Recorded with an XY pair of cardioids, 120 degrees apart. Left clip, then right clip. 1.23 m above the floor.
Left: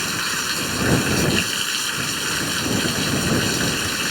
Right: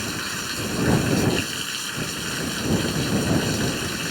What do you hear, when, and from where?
0.0 s running water: 30° left